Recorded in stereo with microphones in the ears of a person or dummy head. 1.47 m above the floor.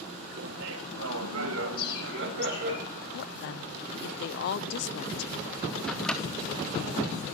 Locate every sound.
0.4 s laughter: 55° right (ahead or behind), 1.4 m; by 2.8 s 60° right (ahead or behind), 2.5 m
1.8 s a bird: 30° left (ahead or behind), 8 m
3.1 s a woman speaking: 60° left (ahead or behind), 0.6 m
5.9 s a microwave: centre (ahead or behind), 0.7 m